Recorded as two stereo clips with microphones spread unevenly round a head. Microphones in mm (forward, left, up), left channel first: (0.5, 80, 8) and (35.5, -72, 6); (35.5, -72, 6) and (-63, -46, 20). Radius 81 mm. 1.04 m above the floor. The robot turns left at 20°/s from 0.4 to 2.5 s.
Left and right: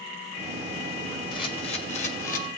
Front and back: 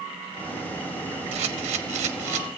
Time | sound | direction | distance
1.3 | a camera shutter | 170° left | 0.9 m